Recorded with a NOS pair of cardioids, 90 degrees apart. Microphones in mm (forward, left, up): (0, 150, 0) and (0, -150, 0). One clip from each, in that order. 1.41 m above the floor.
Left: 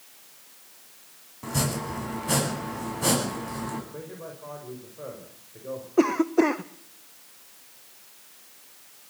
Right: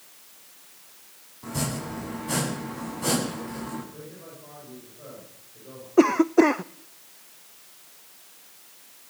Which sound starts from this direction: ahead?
A cough, at 6.0 s.